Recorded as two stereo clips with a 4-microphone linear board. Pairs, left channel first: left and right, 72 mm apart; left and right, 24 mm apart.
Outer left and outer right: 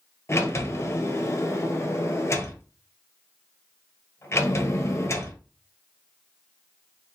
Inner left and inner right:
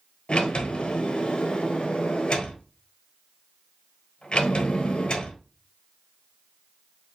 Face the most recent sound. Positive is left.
turn(degrees=40)  # may be behind; listen again after turning